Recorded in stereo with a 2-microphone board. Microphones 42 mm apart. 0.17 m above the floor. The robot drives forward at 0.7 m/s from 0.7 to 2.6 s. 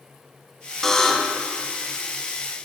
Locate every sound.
0.8 s a buzzer: 10° left (ahead or behind), 0.5 m